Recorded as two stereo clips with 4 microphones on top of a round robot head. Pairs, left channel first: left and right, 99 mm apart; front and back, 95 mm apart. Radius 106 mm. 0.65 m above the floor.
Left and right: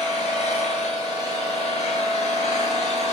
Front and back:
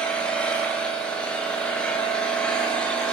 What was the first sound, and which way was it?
An engine running, 75° left.